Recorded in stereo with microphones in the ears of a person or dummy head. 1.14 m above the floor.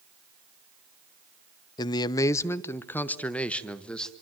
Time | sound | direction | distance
1.8 | a man speaking | 25° left (ahead or behind) | 0.6 m